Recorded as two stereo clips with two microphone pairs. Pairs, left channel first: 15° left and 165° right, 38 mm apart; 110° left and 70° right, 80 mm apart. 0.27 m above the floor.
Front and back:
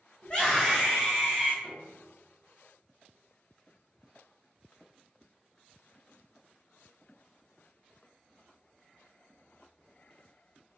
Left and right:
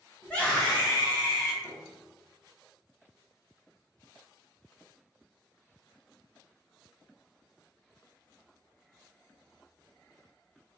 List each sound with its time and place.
0.2 s a scream: 45° left, 1.5 m; by 1.5 s 145° left, 1.7 m
1.6 s a piano: 70° left, 1.3 m